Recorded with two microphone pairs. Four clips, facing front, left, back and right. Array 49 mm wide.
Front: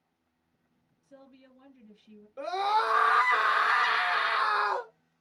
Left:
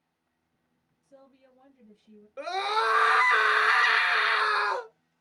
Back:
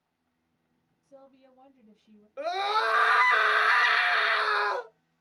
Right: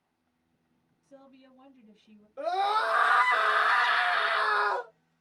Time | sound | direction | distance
1.0 | a woman speaking | 20° right | 1.7 m
2.4 | a scream | 130° left | 1.5 m